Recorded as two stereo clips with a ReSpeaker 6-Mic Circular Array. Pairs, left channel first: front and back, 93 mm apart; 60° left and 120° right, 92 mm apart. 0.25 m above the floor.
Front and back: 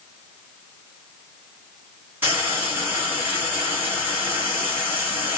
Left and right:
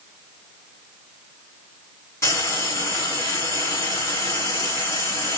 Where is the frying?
115° left, 1.6 m.